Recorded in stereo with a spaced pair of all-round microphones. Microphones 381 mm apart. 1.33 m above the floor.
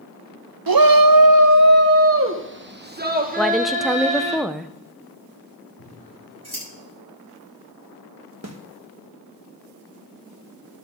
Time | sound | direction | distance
0.7 | a shout | 65° right (ahead or behind) | 0.6 m
3.4 | a woman speaking | centre (ahead or behind) | 0.5 m
5.8 | scissors | 70° left (ahead or behind) | 6.5 m
8.4 | a snare drum | 40° right (ahead or behind) | 1.1 m